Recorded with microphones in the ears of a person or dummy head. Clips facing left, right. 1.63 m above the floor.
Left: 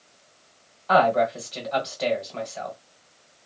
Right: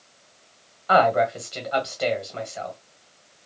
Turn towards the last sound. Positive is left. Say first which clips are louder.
# right 1 dB
turn(degrees=-5)  # may be behind; listen again after turning